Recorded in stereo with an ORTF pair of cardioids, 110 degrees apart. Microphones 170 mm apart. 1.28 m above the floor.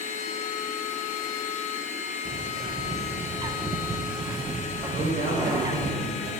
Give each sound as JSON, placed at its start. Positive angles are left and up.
{"t": 0.0, "sound": "a machine running", "azimuth_deg": 45, "distance_m": 1.3}
{"t": 2.2, "sound": "a bird", "azimuth_deg": -25, "distance_m": 0.7}
{"t": 4.9, "sound": "a man speaking", "azimuth_deg": -65, "distance_m": 5.0}